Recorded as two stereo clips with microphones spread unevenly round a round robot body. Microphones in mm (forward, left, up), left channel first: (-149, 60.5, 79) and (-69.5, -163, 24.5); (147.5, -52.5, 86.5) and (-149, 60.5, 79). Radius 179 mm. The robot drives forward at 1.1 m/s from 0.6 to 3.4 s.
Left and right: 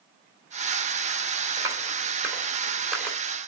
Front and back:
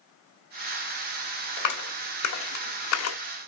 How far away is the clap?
About 3 m.